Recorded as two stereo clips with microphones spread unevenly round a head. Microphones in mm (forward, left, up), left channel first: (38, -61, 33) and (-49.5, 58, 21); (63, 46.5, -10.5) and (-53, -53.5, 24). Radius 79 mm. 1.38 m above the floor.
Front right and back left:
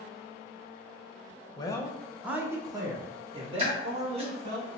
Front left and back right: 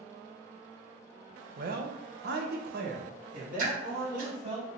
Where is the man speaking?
115° right, 0.7 m; by 4.6 s 170° left, 2 m.